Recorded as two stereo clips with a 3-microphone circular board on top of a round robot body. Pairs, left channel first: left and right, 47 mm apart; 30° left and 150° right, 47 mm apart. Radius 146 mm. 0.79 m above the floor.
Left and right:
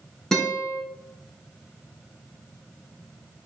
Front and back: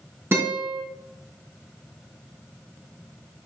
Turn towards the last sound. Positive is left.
turn(degrees=170)